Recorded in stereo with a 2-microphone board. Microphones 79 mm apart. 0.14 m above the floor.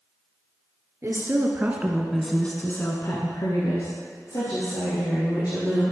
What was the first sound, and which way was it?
A woman speaking, 40° right (ahead or behind).